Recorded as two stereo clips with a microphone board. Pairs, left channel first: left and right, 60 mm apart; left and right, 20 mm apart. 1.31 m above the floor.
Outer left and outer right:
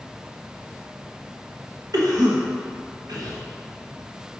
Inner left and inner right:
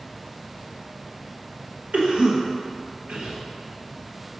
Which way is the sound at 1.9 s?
85° right.